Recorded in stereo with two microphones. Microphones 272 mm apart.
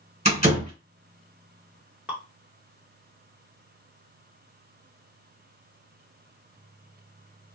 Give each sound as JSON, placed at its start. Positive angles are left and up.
{"t": 0.2, "sound": "a door slam", "side_deg": -25, "distance_m": 1.6}
{"t": 2.1, "sound": "dripping", "side_deg": -5, "distance_m": 1.0}